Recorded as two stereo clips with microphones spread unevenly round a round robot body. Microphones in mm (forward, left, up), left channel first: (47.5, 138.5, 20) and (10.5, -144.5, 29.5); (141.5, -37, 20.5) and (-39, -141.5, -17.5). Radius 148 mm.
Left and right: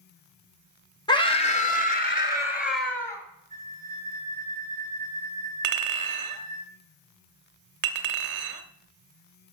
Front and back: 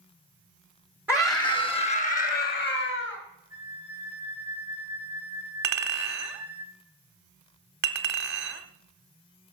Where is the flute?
160° left, 3 m.